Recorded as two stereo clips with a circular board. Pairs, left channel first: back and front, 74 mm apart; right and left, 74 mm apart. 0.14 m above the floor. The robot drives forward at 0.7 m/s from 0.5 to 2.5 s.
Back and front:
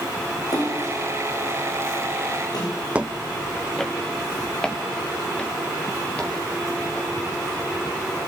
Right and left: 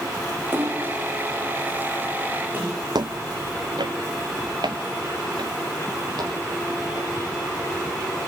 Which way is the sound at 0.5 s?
145° left.